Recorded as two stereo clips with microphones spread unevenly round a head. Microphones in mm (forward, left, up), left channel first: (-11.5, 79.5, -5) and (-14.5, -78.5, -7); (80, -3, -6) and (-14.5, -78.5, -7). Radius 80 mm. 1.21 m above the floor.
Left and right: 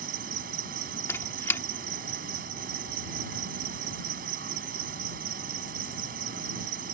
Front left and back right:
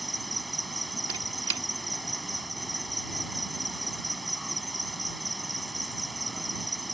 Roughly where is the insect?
Ahead right.